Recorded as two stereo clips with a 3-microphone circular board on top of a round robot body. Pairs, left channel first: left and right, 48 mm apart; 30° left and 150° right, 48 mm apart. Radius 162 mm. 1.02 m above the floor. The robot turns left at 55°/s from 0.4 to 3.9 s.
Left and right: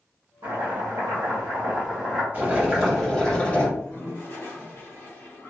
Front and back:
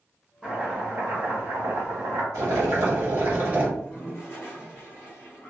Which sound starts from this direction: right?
Chopping, at 0.4 s.